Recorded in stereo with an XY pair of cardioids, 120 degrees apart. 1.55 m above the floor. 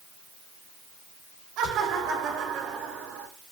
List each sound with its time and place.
1.6 s laughter: 65° right, 7 m; by 3.3 s 50° right, 7 m